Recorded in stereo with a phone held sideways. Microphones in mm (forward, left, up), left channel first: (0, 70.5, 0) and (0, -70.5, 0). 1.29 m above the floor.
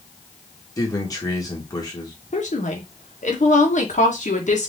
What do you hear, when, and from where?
0.8 s a man speaking: 25° left (ahead or behind), 2 m
2.3 s a woman speaking: 60° left (ahead or behind), 1.7 m